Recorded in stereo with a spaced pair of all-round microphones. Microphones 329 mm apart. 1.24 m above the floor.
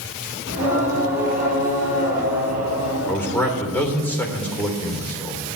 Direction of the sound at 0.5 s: 45° left (ahead or behind).